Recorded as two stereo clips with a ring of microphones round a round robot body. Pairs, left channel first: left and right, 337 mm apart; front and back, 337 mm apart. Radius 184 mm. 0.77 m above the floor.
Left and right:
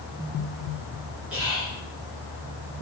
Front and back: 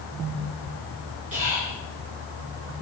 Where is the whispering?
170° right, 0.9 m.